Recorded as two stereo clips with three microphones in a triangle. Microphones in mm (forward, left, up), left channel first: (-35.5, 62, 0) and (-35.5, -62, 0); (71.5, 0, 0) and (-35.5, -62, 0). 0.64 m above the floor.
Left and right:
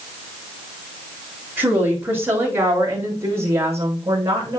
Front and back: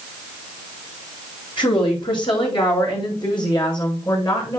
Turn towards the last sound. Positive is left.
turn(degrees=-25)